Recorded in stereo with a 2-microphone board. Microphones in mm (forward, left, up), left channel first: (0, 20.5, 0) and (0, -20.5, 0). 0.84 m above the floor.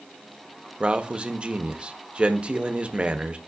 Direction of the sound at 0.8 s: 25° right (ahead or behind).